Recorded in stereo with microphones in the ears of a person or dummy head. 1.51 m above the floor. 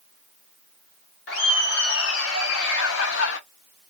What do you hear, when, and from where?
1.3 s laughter: 70° left (ahead or behind), 1.8 m